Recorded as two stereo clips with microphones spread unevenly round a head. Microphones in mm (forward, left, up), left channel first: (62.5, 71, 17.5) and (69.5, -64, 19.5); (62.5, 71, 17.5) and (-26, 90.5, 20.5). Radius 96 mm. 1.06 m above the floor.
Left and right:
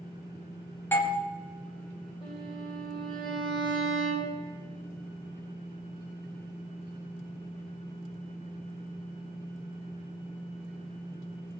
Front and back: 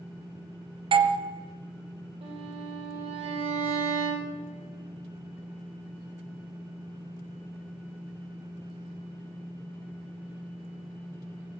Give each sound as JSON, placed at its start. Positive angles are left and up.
{"t": 0.9, "sound": "a doorbell", "azimuth_deg": 165, "distance_m": 0.9}
{"t": 2.2, "sound": "a violin", "azimuth_deg": 160, "distance_m": 1.9}